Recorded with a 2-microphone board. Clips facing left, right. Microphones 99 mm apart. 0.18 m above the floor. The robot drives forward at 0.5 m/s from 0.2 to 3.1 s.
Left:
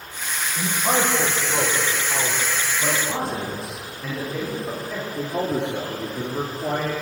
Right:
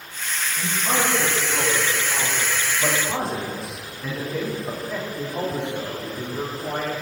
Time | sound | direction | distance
0.6 | a man speaking | 35° left (ahead or behind) | 7.5 m
2.8 | a man speaking | 5° right (ahead or behind) | 8.5 m
5.2 | a man speaking | 65° left (ahead or behind) | 7.5 m